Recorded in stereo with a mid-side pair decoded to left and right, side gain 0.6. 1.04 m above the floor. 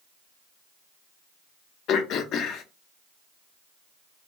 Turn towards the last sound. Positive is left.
turn(degrees=55)